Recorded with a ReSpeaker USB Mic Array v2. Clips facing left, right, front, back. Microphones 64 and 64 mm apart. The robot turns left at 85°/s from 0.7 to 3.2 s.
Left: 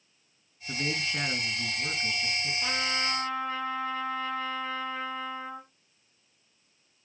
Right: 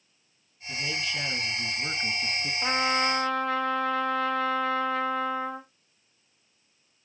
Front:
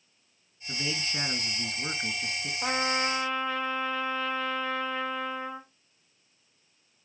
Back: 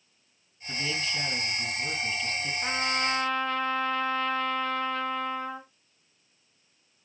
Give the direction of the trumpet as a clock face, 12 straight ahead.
1 o'clock.